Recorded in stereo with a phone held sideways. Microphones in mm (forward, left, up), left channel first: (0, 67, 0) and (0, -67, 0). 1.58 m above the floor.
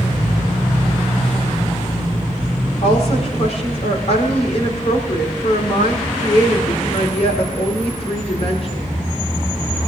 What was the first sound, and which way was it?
A woman speaking, 50° left (ahead or behind).